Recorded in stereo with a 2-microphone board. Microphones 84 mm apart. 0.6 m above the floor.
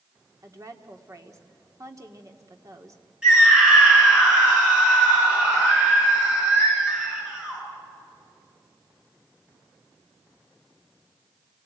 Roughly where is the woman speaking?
Right.